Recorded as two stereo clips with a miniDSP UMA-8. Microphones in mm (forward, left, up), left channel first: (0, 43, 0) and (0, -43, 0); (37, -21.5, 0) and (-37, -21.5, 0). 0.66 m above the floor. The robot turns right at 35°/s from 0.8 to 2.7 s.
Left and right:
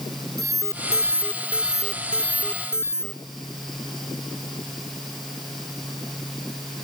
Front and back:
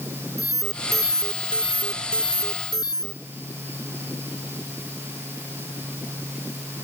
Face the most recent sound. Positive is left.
turn(degrees=30)